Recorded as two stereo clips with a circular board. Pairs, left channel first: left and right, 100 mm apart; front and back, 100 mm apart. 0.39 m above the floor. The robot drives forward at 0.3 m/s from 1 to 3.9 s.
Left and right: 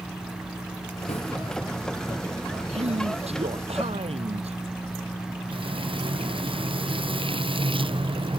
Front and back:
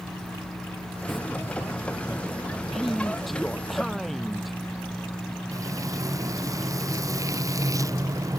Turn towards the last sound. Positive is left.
turn(degrees=-125)